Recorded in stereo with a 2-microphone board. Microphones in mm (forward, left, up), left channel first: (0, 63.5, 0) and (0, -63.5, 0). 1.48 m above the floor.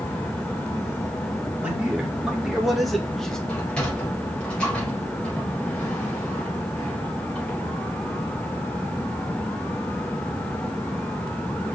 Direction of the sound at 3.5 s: 10° left (ahead or behind).